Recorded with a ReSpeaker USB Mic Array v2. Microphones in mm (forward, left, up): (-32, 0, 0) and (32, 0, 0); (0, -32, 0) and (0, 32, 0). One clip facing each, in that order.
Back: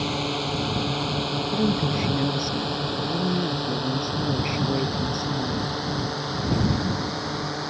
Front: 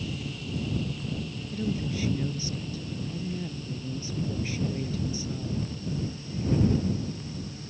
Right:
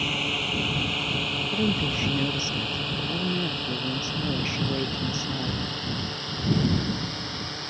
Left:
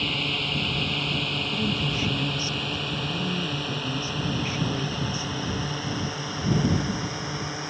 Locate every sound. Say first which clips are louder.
0.0 s a drone: back 10 dB, even; 170° right; by 7.7 s 170° left
1.5 s a woman speaking: back 6 dB, right 3 dB; 145° right